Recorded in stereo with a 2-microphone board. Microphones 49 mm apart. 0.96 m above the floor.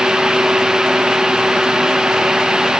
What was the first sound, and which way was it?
Only background noise.